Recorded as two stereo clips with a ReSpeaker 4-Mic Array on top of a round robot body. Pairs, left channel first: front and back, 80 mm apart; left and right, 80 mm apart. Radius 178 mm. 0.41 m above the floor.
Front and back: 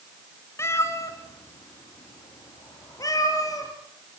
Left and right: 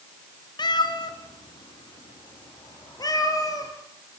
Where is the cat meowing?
60° left, 1.3 m; by 3.7 s 45° left, 3 m.